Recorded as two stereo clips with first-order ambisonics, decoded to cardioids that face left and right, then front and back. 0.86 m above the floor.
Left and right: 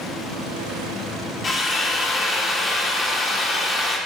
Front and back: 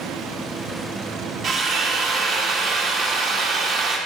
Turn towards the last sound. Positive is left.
turn(degrees=130)